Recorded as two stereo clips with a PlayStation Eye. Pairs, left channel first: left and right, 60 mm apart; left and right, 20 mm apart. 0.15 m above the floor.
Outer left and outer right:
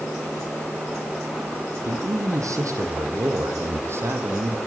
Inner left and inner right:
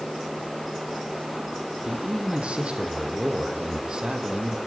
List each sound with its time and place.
1.8 s a man speaking: 70° right (ahead or behind), 6.5 m; by 4.6 s 40° right (ahead or behind), 5.5 m